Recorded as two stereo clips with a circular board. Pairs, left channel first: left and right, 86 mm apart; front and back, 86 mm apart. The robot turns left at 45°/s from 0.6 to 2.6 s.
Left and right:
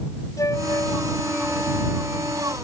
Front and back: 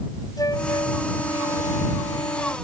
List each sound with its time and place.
0.4 s a flute: 40° left; by 2.5 s 45° right